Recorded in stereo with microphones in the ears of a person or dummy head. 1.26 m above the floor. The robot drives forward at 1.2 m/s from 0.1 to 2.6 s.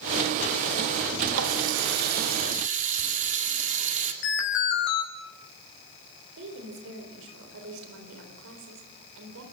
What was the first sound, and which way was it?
A running tap, 80° right.